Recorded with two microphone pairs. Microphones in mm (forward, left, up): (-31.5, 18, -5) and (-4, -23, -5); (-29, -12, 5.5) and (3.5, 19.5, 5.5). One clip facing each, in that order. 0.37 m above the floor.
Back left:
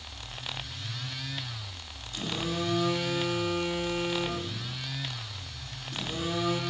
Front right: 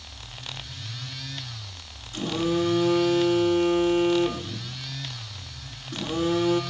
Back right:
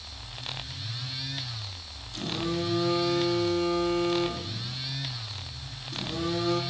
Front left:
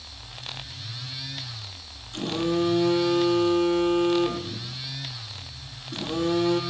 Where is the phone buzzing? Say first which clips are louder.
Front right 8 dB, front left 6 dB; 10° left, 5.5 m.